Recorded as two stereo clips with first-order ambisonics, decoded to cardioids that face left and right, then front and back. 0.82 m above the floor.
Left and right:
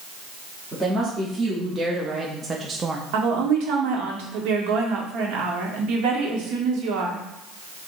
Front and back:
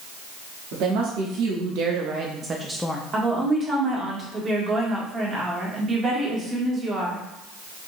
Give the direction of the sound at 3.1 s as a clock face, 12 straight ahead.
4 o'clock.